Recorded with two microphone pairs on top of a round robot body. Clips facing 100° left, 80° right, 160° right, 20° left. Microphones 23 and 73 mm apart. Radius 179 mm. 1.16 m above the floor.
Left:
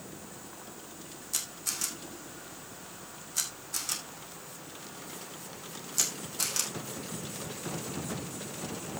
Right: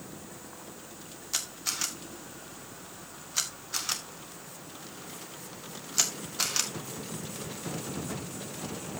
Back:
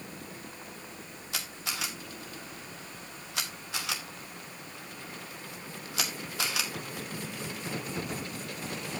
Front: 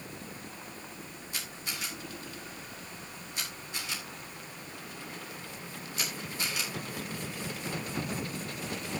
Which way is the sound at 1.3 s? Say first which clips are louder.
Right 3 dB, back 4 dB; 145° right.